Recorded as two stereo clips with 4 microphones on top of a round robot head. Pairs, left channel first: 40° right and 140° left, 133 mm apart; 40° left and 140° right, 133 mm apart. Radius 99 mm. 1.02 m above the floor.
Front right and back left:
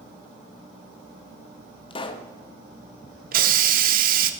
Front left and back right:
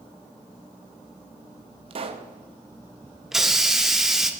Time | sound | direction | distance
1.9 | a pop | 90° right | 0.7 m
3.3 | a hiss | 130° left | 0.8 m